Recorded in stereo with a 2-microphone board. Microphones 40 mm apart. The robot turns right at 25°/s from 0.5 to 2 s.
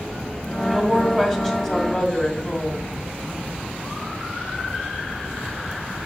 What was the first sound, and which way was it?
A woman speaking, 5° right.